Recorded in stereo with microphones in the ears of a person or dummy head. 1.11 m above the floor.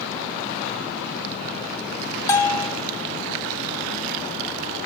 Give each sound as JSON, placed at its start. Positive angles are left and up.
{"t": 2.3, "sound": "a bell", "side_deg": 25, "distance_m": 0.8}